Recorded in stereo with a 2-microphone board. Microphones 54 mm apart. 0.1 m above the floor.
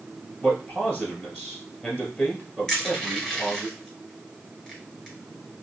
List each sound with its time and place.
0.4 s a man speaking: 25° left (ahead or behind), 1.7 m
2.7 s crushing: 15° left (ahead or behind), 1.9 m